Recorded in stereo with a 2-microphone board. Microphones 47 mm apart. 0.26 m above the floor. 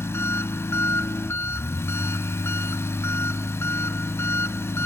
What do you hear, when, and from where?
0.0 s an engine running: 65° left (ahead or behind), 0.9 m